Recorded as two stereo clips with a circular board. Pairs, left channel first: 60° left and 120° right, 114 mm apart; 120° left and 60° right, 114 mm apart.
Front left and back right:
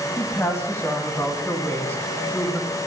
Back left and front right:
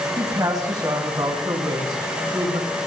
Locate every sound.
0.2 s a woman speaking: 5° right, 1.9 m; by 2.8 s 15° right, 3 m